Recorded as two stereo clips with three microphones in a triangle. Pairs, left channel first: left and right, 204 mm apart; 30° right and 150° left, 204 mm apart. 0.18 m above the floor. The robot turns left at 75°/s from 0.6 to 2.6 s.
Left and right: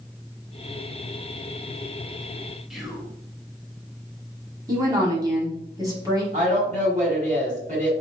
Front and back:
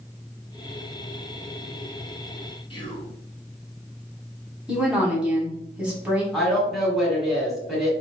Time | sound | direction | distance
2.7 | whispering | 5° right | 1.2 m
4.7 | a woman speaking | 130° right | 1.5 m
6.3 | a woman speaking | 120° right | 2 m